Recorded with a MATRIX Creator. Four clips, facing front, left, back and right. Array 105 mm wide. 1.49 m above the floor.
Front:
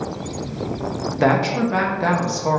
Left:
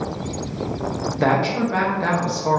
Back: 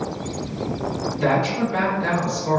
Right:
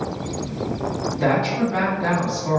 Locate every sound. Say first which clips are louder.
1.2 s a woman speaking: left 1 dB, front 3 dB; 25° left, 0.8 m